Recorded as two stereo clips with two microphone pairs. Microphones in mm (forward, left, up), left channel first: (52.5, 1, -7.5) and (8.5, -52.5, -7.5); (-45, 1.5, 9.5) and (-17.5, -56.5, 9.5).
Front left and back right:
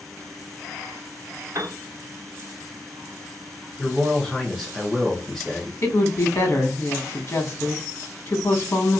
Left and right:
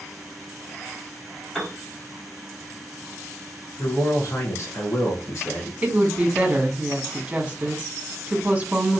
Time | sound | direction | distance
1.6 | a piano | 155° right | 0.9 m
3.8 | a man speaking | 130° left | 0.9 m
5.8 | a woman speaking | 5° left | 0.9 m